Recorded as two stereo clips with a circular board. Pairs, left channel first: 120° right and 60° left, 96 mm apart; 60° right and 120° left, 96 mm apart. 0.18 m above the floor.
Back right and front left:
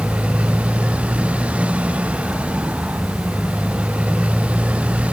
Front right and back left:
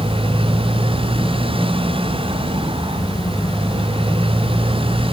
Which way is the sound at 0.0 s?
140° left.